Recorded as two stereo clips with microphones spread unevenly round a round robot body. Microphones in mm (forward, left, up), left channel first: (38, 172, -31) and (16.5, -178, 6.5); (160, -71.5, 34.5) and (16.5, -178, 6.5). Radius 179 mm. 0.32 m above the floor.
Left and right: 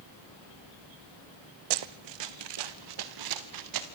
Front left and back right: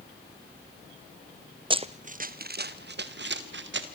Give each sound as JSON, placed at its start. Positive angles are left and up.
{"t": 1.7, "sound": "running footsteps", "azimuth_deg": -75, "distance_m": 1.3}